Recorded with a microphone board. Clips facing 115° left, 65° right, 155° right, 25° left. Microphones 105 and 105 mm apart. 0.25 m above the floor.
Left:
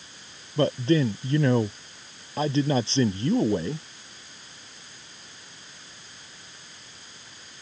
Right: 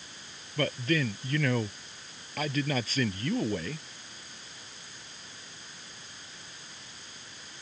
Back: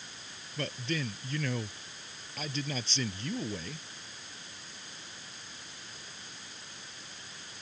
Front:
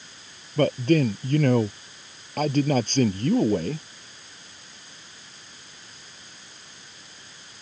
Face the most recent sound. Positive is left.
turn(degrees=50)